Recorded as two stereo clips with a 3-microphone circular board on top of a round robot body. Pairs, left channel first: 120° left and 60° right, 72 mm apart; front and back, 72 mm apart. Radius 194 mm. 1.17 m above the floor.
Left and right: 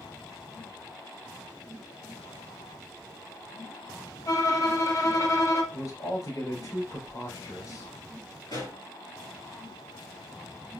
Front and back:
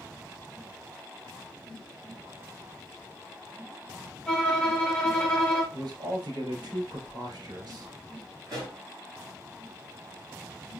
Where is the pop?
140° left, 3 m.